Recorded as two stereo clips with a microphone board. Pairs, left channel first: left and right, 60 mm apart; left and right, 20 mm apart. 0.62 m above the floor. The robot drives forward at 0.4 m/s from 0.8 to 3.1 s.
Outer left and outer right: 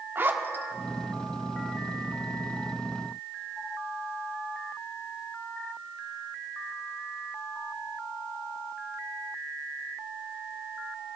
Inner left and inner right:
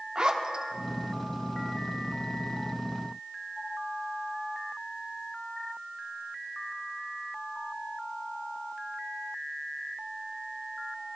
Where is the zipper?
35° right (ahead or behind), 0.6 m.